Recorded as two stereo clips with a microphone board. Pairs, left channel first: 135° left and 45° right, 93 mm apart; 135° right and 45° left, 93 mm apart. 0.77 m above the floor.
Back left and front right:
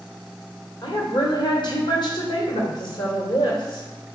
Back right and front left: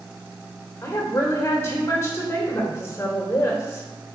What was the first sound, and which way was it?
A woman speaking, 165° left.